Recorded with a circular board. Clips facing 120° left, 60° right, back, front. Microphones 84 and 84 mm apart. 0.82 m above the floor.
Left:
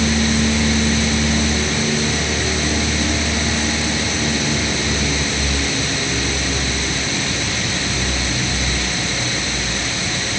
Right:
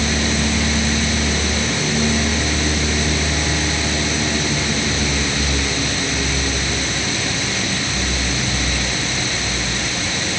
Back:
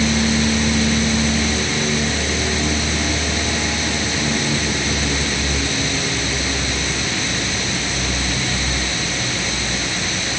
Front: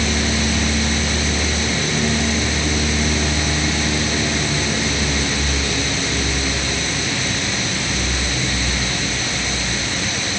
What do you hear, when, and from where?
Only background noise.